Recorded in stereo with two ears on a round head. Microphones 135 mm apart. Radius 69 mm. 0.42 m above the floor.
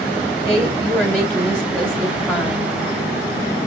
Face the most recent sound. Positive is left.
turn(degrees=5)  # may be behind; listen again after turning